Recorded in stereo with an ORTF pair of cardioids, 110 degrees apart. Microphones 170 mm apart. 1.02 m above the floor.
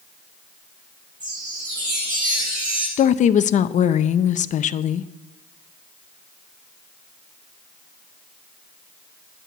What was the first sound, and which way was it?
A chime, 25° right.